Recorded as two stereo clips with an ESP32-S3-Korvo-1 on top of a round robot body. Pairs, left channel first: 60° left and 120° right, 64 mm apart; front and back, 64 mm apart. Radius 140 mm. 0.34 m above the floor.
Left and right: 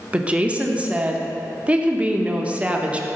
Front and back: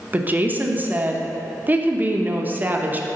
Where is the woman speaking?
165° right, 0.9 m.